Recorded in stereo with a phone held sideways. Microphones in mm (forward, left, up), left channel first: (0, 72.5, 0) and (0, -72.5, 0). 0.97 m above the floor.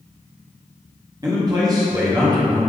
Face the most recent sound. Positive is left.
turn(degrees=-25)  # may be behind; listen again after turning